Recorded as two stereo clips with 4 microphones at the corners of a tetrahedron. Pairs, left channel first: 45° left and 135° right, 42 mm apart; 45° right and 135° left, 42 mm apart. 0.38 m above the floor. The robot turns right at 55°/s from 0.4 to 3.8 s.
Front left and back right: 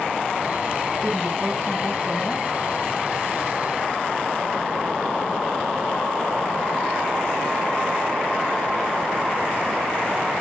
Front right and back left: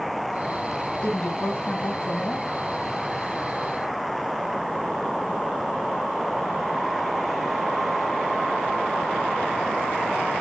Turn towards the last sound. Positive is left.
turn(degrees=80)